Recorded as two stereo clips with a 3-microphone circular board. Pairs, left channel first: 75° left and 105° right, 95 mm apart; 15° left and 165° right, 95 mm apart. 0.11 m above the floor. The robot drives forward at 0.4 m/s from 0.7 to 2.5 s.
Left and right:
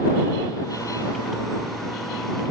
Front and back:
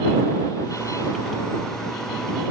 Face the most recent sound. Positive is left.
No sound to turn to.